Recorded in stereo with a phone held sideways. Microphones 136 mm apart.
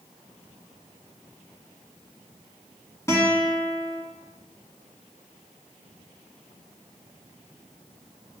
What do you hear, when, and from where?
3.1 s a guitar: 20° left (ahead or behind), 1.6 m